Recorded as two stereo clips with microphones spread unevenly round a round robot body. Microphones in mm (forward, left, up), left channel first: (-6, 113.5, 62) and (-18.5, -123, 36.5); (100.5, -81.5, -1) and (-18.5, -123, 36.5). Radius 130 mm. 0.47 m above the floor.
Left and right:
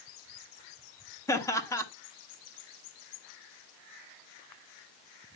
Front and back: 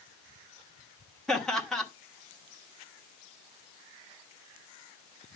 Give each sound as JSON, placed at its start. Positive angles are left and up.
{"t": 1.3, "sound": "laughter", "azimuth_deg": 15, "distance_m": 1.3}